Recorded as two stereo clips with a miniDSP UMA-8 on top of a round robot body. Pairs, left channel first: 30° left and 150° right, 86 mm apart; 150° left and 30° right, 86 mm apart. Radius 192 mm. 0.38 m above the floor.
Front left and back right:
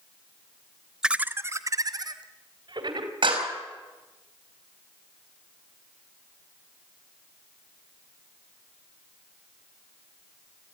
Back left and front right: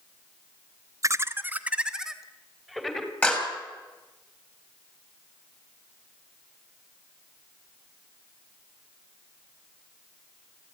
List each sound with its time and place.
1.0 s laughter: 70° right, 1.2 m; by 3.1 s 125° right, 3 m
3.2 s a clap: 135° right, 5.5 m